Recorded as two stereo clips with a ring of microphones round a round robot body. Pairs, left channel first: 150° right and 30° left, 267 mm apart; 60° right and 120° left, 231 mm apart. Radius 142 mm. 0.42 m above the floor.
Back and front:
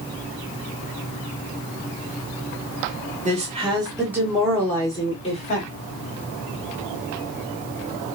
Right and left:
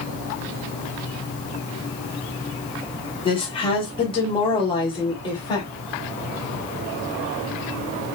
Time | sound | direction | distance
3.2 | a woman speaking | 10° right | 1.5 m